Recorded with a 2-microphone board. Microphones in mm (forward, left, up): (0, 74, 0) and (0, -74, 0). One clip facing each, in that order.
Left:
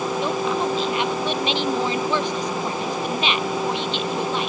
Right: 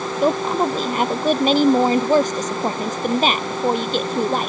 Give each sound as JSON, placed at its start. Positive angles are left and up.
{"t": 0.2, "sound": "a woman speaking", "side_deg": -45}